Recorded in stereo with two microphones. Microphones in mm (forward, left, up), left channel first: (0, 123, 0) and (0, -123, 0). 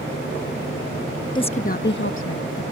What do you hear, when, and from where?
1.4 s a woman speaking: 15° left (ahead or behind); by 2.6 s 65° left (ahead or behind)